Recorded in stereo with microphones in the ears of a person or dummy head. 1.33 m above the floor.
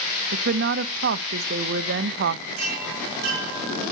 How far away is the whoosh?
I don't hear a whoosh.